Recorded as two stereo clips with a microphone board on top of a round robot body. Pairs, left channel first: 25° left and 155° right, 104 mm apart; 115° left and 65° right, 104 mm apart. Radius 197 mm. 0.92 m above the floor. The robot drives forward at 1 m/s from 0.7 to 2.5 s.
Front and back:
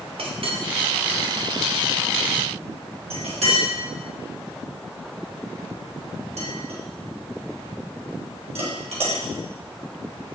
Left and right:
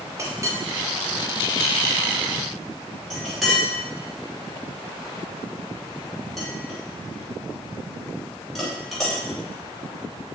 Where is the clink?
130° right, 1.3 m; by 9.2 s 160° right, 3 m.